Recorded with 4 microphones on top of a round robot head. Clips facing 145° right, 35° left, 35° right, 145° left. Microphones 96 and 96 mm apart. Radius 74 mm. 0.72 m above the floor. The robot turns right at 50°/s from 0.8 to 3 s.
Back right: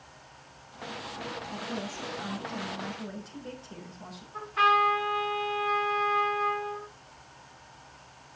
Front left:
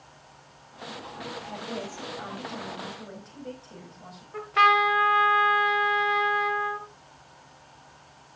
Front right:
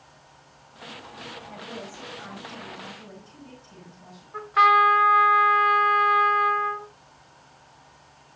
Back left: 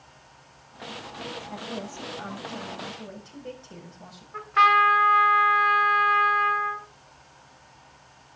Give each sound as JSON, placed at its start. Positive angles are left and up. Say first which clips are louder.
{"t": 1.5, "sound": "a woman speaking", "louder": "front left 2 dB, back left 3 dB", "azimuth_deg": 55, "distance_m": 4.5}
{"t": 4.3, "sound": "a trumpet", "louder": "front left 3 dB, front right 1 dB", "azimuth_deg": 45, "distance_m": 2.0}